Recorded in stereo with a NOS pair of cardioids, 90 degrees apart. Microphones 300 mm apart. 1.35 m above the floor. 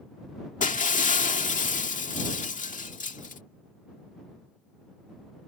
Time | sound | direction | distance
0.6 | breaking glass | 25° left | ?